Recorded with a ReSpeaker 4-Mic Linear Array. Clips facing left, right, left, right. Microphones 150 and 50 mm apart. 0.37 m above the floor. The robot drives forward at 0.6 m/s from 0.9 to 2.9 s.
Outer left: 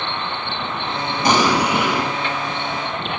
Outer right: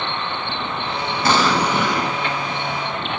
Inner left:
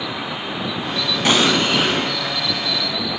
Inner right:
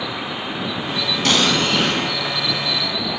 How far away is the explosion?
About 0.8 m.